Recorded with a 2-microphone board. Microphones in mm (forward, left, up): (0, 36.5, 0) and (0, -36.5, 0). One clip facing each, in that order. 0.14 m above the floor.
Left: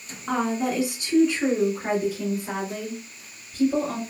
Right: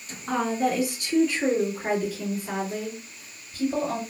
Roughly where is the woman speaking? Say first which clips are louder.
Even; centre.